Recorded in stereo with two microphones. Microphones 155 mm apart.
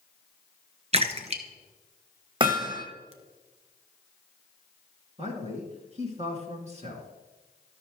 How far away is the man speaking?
About 2 m.